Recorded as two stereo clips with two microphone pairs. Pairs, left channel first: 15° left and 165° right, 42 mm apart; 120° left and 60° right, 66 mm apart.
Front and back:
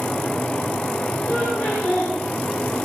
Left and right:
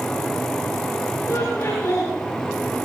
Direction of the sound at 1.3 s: 65° left.